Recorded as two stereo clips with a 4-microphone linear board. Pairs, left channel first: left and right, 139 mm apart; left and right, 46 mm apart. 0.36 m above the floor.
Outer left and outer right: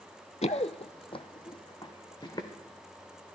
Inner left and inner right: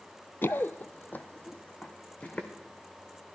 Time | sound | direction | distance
0.4 | running footsteps | 55° left (ahead or behind) | 0.5 m